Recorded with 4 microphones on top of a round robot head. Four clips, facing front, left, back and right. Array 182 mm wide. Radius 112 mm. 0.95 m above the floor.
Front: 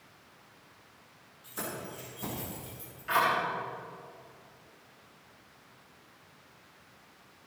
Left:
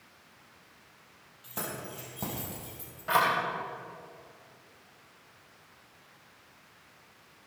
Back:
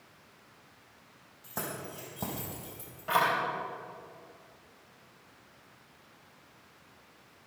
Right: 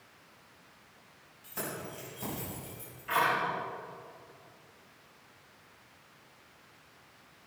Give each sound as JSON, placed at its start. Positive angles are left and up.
{"t": 1.4, "sound": "keys jangling", "azimuth_deg": 155, "distance_m": 4.5}